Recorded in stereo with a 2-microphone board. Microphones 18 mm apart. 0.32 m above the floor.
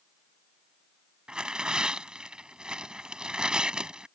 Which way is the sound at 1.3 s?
55° right (ahead or behind).